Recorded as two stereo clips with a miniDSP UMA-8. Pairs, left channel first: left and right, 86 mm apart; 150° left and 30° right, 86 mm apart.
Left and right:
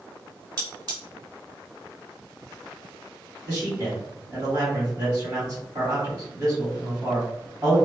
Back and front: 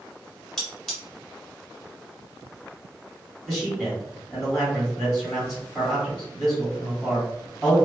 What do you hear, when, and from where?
0.6 s cutlery clinking: 130° right, 1.4 m
3.5 s a man speaking: 135° right, 1.7 m